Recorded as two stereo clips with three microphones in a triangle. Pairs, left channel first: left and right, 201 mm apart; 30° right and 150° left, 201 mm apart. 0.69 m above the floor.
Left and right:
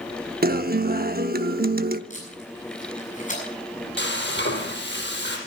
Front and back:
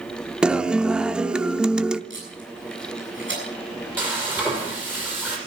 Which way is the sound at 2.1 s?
140° left.